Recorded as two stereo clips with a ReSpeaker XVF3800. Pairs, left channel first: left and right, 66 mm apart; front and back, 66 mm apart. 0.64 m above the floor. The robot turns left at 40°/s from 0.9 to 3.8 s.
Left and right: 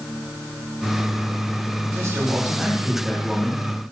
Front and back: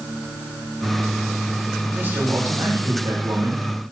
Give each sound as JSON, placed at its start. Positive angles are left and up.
{"t": 1.9, "sound": "a man speaking", "azimuth_deg": -120, "distance_m": 2.5}